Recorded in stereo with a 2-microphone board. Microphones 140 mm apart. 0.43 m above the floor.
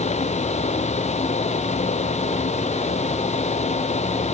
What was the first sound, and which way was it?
Only background noise.